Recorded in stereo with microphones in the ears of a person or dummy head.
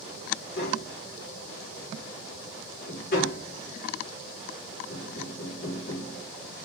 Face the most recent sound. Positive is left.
turn(degrees=45)  # may be behind; listen again after turning